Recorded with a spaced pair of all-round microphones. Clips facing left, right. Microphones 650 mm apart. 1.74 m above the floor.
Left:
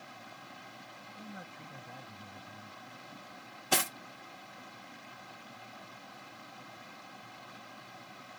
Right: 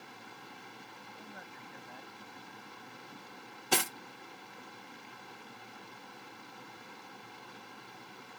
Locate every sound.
0.0 s running water: 10° left (ahead or behind)
1.2 s a man speaking: 55° left (ahead or behind)
3.7 s cutlery clinking: 10° left (ahead or behind)